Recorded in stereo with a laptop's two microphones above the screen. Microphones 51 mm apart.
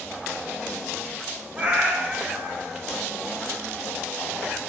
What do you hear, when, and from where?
1.6 s a cat meowing: 20° right (ahead or behind), 1.5 m